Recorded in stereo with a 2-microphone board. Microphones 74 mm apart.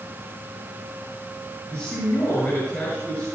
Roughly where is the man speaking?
Left.